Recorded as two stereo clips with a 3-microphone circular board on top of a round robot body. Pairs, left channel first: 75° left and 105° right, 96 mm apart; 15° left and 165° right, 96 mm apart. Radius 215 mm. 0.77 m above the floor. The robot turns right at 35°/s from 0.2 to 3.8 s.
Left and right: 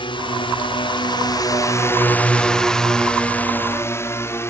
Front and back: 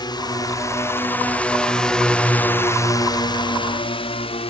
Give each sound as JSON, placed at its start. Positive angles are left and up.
{"t": 0.0, "sound": "a drone", "azimuth_deg": 55}